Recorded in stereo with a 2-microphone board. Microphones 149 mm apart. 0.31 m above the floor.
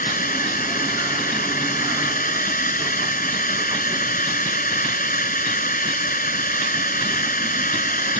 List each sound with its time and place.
0.0 s a drone: 70° left (ahead or behind)